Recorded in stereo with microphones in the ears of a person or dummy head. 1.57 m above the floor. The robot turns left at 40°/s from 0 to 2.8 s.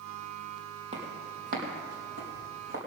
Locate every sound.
0.9 s footsteps: 35° right (ahead or behind), 4 m; by 2.8 s 65° right (ahead or behind), 4.5 m